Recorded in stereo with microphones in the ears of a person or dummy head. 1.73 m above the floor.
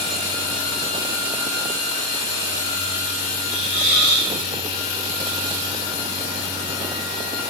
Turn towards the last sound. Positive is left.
turn(degrees=-25)  # may be behind; listen again after turning